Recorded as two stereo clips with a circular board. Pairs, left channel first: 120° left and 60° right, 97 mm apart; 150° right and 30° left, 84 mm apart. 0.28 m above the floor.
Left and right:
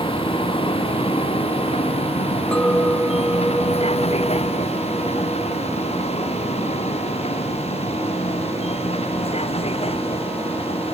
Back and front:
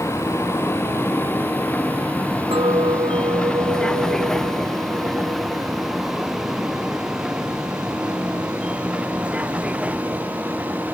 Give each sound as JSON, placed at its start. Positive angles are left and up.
{"t": 0.0, "sound": "a vehicle", "azimuth_deg": 150}
{"t": 2.5, "sound": "a clink", "azimuth_deg": 35}